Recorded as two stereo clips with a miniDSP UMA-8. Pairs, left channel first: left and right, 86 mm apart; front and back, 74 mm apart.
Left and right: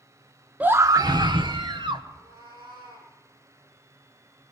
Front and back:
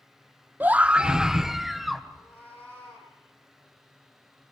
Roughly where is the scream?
Behind right.